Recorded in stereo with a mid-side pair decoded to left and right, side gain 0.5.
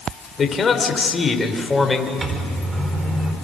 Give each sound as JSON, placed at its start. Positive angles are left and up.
{"t": 0.4, "sound": "a man speaking", "azimuth_deg": 35, "distance_m": 3.5}
{"t": 2.2, "sound": "a microwave", "azimuth_deg": -30, "distance_m": 4.5}